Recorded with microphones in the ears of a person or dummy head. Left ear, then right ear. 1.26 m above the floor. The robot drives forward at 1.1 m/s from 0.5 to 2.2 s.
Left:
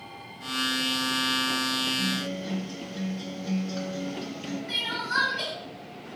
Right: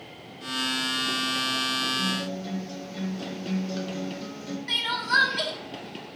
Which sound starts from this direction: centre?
A guitar, at 2.0 s.